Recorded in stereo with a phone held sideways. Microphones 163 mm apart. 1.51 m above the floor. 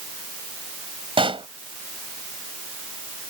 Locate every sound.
1.2 s a pop: 35° right (ahead or behind)